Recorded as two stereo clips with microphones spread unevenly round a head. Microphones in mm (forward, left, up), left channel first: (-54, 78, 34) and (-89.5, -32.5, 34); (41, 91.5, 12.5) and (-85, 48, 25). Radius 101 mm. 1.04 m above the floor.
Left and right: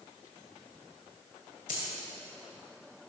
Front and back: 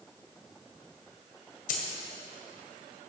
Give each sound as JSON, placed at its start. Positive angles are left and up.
{"t": 1.7, "sound": "a dropped coin", "azimuth_deg": 35, "distance_m": 2.0}